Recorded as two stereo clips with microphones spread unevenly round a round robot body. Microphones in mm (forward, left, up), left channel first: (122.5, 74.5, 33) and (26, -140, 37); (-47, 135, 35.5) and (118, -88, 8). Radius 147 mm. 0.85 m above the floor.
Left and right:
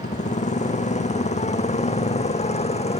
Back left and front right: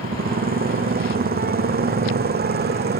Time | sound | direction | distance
0.0 | a motorcycle | 5° left | ?